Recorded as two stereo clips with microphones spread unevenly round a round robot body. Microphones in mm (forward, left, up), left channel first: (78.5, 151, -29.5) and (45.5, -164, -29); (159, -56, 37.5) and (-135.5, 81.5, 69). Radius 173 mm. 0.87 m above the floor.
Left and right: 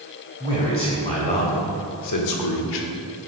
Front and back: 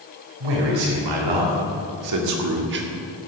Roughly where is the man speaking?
Behind.